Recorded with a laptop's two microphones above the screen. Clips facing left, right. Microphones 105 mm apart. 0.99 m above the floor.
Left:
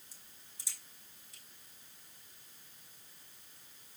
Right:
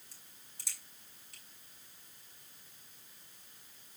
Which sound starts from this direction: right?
A crack, at 0.1 s.